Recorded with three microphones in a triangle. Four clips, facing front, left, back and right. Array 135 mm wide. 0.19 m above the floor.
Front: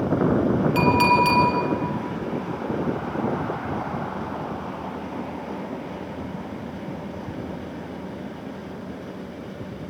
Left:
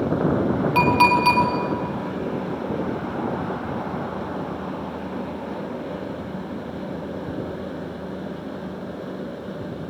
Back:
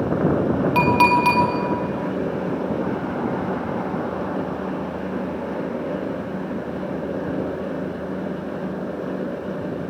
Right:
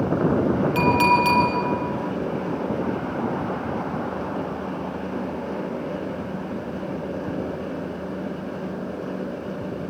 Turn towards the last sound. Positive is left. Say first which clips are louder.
# left 2 dB, back 2 dB
turn(degrees=150)